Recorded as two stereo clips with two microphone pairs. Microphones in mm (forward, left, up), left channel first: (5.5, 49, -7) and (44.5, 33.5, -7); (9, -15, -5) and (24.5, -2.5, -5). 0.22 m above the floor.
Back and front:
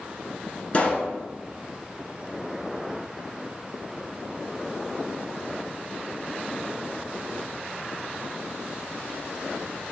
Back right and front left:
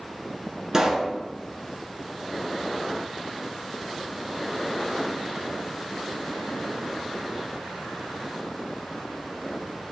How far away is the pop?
About 1.8 m.